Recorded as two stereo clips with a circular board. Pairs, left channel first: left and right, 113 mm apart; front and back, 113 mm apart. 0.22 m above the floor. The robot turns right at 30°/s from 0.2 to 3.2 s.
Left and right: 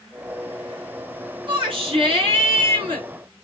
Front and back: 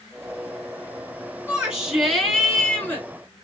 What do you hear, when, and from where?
1.5 s a shout: 105° right, 2.5 m; by 3.1 s 60° right, 2.5 m